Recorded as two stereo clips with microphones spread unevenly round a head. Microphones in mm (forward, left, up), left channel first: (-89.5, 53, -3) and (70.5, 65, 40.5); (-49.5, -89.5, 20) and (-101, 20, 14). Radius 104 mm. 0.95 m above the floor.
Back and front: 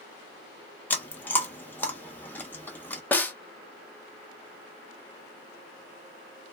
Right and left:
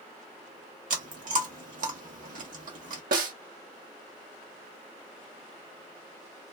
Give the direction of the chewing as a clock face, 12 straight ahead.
9 o'clock.